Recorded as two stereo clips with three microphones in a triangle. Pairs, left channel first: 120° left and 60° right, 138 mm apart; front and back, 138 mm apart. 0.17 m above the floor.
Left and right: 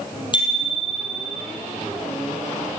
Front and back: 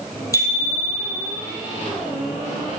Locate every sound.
0.3 s a bicycle bell: 65° left, 4 m